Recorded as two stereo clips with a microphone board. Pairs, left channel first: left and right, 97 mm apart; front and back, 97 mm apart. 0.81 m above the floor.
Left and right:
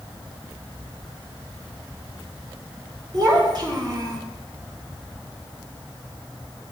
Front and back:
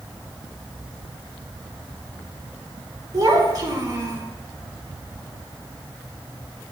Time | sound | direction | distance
3.1 | a child speaking | 135° right | 2.5 m